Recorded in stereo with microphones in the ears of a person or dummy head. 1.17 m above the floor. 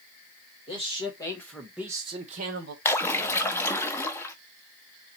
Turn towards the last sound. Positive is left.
turn(degrees=15)  # may be behind; listen again after turning